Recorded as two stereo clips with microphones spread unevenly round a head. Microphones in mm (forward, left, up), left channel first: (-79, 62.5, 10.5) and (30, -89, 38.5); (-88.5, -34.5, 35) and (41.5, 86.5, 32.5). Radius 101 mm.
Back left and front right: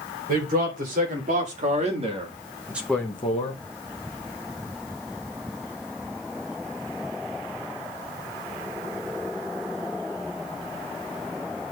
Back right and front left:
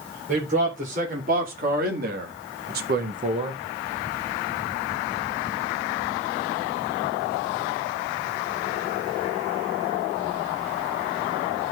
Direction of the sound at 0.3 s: 5° right.